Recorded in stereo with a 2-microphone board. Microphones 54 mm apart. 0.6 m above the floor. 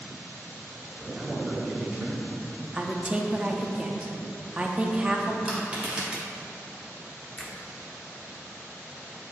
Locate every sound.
1.0 s a man speaking: 25° right (ahead or behind), 1.1 m
2.7 s a woman speaking: 20° right (ahead or behind), 0.5 m
5.5 s crushing: 20° right (ahead or behind), 2.0 m
7.4 s a finger snap: 15° left (ahead or behind), 0.8 m